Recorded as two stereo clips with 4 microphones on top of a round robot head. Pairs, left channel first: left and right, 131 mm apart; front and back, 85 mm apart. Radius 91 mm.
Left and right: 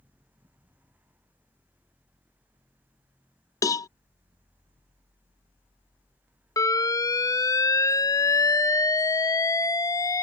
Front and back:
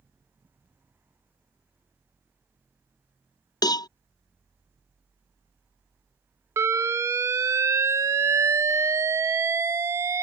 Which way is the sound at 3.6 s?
30° left.